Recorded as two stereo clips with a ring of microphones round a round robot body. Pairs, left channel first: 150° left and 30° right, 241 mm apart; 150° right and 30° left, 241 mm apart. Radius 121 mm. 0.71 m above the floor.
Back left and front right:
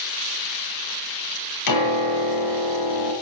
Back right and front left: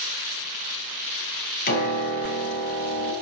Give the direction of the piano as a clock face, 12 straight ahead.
7 o'clock.